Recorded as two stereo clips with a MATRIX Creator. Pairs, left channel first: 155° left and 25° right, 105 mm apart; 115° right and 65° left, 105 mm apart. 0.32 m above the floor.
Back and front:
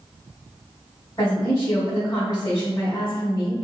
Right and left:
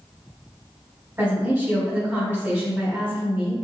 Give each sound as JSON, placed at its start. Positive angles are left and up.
{"t": 1.2, "sound": "a woman speaking", "azimuth_deg": 120, "distance_m": 1.5}